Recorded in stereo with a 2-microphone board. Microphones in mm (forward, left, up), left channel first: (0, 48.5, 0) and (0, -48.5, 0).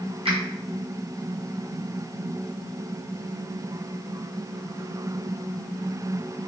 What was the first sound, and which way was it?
A finger snap, 75° right (ahead or behind).